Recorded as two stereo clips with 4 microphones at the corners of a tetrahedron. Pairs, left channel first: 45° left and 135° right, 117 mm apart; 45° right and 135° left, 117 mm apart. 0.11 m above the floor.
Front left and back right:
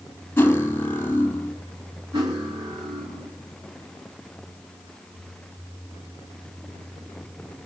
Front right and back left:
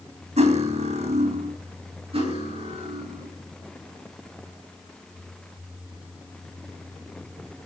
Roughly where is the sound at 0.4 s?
Behind left.